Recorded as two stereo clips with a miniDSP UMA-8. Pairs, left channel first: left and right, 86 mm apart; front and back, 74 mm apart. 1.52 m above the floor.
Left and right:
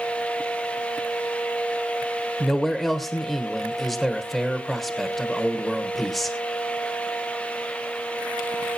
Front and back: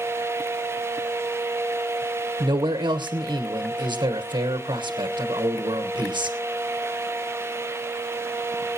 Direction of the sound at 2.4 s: 175° left.